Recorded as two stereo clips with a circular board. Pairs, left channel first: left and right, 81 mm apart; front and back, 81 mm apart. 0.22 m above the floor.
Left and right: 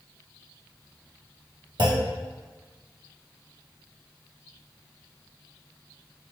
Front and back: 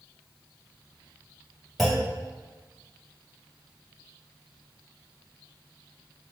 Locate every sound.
1.8 s a clunk: 90° right, 1.1 m